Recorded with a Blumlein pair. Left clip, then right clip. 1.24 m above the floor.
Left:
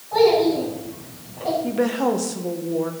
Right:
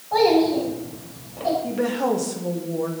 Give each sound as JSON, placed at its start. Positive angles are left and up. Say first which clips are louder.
{"t": 0.1, "sound": "a child speaking", "louder": "left 1 dB", "azimuth_deg": -20, "distance_m": 6.0}
{"t": 1.6, "sound": "a woman speaking", "louder": "left 1 dB", "azimuth_deg": 5, "distance_m": 1.5}